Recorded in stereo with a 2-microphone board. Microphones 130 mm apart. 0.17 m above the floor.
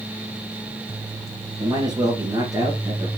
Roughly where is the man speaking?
Right.